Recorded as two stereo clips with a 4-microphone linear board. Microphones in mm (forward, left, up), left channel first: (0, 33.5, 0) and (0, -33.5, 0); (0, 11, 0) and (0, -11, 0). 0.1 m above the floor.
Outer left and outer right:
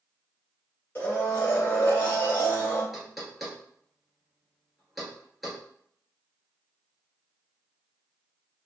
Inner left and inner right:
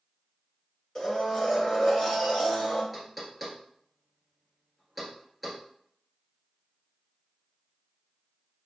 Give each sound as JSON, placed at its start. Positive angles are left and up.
{"t": 0.9, "sound": "a blender", "side_deg": 25, "distance_m": 1.6}
{"t": 2.9, "sound": "knocking", "side_deg": -5, "distance_m": 1.1}